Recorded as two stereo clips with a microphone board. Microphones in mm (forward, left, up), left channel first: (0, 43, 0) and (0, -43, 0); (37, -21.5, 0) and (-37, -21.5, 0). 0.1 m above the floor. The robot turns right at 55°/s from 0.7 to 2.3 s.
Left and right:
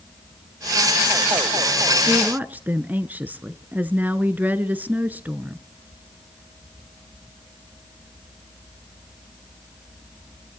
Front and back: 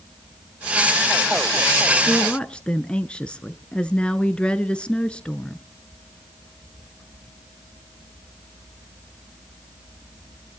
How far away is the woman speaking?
About 1.1 m.